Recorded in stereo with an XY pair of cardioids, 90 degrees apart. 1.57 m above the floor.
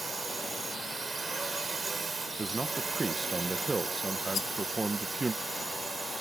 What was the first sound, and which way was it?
A drone, 35° right.